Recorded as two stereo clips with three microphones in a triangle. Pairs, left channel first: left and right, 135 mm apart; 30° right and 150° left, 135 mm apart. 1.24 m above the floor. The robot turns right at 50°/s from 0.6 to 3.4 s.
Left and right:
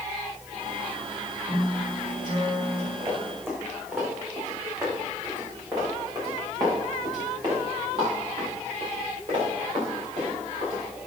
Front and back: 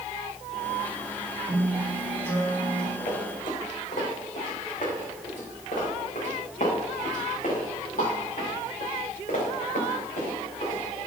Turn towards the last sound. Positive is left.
turn(degrees=-50)